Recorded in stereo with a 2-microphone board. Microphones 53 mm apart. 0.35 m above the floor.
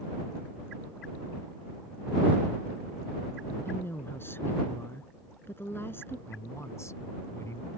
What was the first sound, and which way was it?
A woman speaking, 45° left (ahead or behind).